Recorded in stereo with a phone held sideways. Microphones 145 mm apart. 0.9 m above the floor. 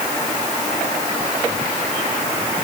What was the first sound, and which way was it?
Only background noise.